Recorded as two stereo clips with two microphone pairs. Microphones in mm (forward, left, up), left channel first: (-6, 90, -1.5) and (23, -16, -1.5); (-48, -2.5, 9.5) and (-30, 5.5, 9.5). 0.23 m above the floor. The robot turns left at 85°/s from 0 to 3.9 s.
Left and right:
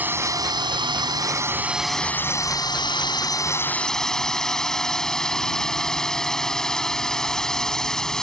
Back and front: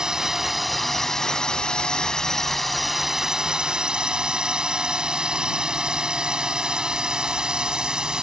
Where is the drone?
5° right; by 8.2 s 25° left.